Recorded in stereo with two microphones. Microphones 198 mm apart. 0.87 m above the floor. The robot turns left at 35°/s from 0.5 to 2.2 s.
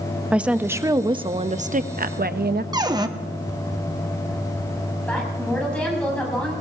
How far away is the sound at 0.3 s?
About 0.6 m.